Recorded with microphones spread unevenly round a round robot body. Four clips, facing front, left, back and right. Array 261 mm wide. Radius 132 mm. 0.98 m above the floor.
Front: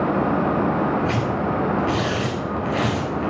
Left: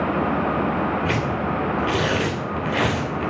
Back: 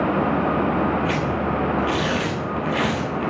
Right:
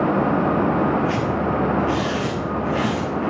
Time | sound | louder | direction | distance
1.1 | tearing paper | right 2 dB, even | 90° left | 3.5 m